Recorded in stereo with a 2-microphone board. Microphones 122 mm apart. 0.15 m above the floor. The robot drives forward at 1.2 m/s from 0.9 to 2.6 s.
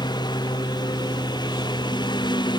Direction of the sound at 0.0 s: 35° left (ahead or behind).